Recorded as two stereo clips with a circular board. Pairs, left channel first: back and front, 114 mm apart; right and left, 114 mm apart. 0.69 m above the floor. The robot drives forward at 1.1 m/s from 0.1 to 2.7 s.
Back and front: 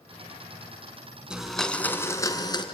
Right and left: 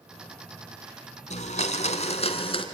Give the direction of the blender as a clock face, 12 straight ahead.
3 o'clock.